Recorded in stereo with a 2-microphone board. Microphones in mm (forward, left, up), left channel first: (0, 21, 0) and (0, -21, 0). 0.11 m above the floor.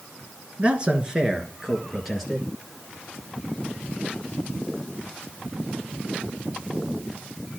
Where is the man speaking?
30° right (ahead or behind), 1.9 m; by 2.5 s centre (ahead or behind), 3 m.